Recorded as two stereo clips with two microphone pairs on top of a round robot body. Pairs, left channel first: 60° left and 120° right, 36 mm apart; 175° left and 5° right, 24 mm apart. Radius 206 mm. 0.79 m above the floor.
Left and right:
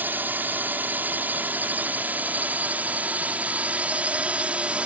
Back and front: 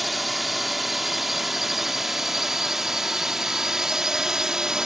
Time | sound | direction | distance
0.0 | a drone | 95° right | ?